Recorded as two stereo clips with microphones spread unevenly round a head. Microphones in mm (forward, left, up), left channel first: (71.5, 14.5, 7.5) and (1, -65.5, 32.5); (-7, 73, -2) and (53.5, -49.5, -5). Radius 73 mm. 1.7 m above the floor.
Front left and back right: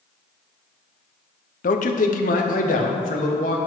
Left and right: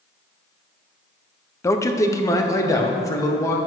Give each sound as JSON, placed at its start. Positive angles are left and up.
{"t": 1.6, "sound": "a man speaking", "azimuth_deg": 50, "distance_m": 0.7}